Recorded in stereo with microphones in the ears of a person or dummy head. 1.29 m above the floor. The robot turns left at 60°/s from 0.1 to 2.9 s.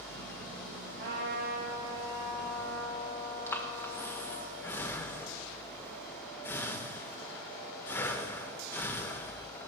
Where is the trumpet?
85° right, 4.5 m; by 4.5 s 160° left, 4.5 m.